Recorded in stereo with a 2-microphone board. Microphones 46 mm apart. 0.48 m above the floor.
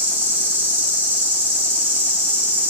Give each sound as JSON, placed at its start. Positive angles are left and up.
{"t": 0.0, "sound": "an insect", "side_deg": -50, "distance_m": 0.9}